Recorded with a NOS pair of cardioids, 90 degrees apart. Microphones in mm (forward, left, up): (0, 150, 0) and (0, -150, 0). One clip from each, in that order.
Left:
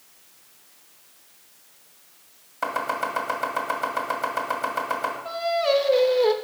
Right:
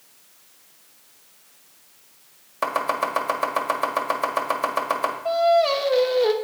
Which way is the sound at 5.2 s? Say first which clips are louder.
Right 6 dB; 10° right.